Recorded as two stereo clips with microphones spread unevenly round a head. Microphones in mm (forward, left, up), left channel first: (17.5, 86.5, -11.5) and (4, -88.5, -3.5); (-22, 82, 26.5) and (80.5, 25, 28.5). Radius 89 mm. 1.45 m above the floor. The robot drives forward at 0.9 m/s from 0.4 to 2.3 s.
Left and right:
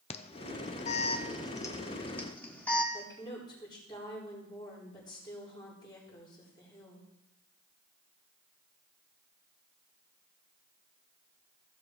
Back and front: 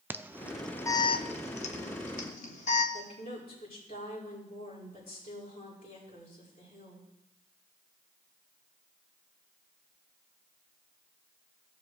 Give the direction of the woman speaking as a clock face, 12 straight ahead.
7 o'clock.